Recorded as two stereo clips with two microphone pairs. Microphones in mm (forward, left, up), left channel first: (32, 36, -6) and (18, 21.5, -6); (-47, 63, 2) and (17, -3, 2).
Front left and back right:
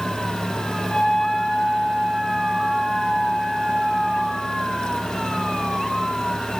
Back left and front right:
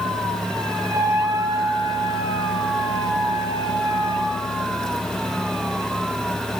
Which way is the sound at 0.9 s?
15° left.